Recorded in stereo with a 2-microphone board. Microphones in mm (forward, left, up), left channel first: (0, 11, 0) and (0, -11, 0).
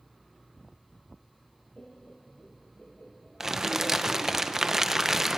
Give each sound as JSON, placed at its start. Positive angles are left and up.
{"t": 1.8, "sound": "laughter", "side_deg": 75, "distance_m": 1.8}
{"t": 3.4, "sound": "crumpling", "side_deg": -20, "distance_m": 0.7}